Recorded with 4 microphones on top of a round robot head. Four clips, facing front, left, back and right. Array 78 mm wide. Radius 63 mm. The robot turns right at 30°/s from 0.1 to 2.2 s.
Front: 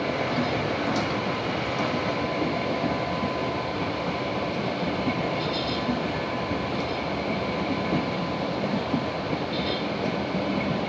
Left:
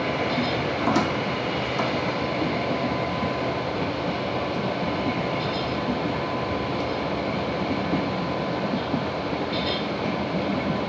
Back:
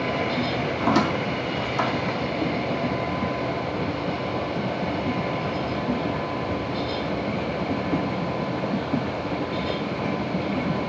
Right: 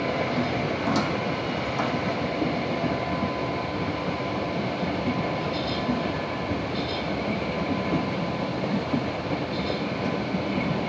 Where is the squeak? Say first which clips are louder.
Left 4 dB, back 4 dB; 150° left, 0.5 m; by 2.2 s 165° right, 0.5 m.